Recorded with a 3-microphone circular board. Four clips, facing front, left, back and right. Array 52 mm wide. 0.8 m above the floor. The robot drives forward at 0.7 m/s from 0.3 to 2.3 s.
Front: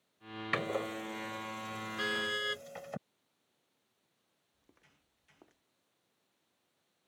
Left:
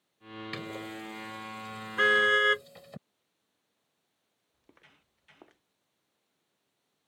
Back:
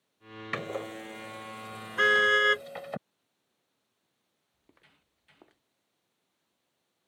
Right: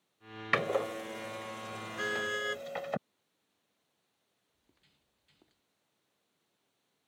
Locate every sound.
0.5 s a door slam: 85° right; by 3.0 s 110° right
2.0 s a car horn: 140° left
4.5 s footsteps: 110° left; by 5.6 s 105° left